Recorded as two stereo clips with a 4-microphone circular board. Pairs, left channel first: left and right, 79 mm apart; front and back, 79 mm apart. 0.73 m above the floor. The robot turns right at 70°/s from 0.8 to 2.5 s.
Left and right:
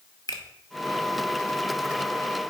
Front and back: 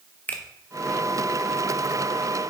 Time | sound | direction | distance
0.3 | a finger snap | 65° left | 0.8 m